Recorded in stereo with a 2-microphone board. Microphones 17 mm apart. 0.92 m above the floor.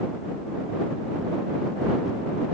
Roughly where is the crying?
I don't hear crying.